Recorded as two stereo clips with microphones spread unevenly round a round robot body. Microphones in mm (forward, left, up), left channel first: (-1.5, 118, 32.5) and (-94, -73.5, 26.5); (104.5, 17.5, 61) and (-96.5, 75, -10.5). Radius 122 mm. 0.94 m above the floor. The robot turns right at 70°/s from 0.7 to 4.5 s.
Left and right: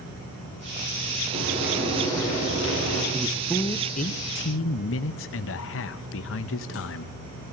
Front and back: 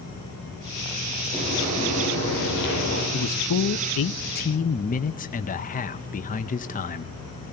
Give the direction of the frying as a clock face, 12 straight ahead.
2 o'clock.